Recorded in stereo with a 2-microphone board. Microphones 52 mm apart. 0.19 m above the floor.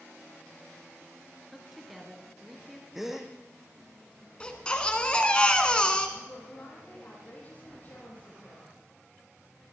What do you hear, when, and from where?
1.5 s a woman speaking: 5° right (ahead or behind), 3.5 m
3.0 s a gasp: 5° right (ahead or behind), 1.8 m
4.4 s a baby crying: 20° left (ahead or behind), 1.7 m
6.2 s a woman speaking: 35° left (ahead or behind), 7.5 m